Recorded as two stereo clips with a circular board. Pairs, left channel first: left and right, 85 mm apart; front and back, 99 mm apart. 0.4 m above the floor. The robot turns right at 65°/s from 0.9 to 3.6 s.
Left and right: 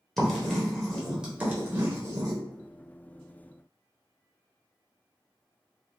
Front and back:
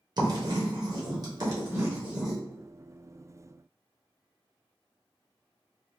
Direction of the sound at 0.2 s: 170° left.